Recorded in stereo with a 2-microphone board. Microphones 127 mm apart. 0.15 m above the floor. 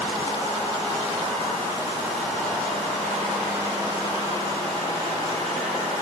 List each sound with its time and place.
Only background noise.